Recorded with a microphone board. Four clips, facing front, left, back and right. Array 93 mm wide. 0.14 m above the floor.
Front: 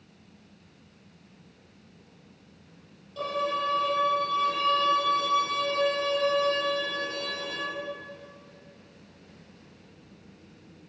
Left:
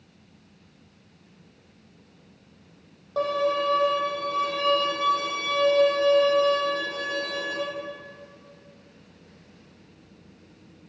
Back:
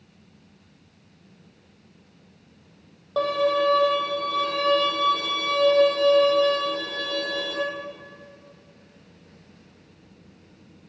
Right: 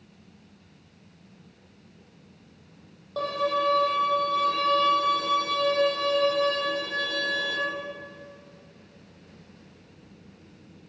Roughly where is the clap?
No clap in this recording.